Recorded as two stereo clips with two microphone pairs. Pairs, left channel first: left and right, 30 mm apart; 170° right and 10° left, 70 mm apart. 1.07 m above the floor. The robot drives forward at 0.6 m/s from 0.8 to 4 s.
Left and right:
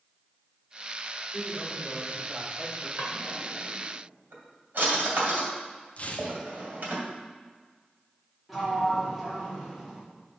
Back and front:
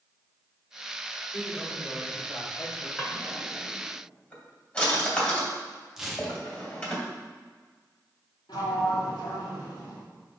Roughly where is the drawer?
Right.